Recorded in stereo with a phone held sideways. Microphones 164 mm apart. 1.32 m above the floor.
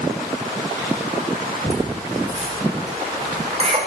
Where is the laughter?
40° right (ahead or behind), 5.5 m.